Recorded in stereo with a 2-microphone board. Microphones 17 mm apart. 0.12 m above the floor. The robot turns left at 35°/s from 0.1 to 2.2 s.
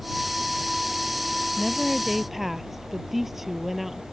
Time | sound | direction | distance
1.6 | a woman speaking | 5° left (ahead or behind) | ?